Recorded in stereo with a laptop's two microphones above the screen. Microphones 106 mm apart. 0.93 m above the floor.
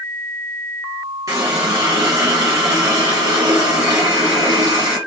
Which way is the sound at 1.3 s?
30° right (ahead or behind).